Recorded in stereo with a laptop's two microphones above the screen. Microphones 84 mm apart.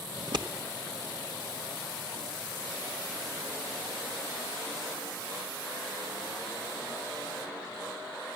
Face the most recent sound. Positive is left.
turn(degrees=-60)  # may be behind; listen again after turning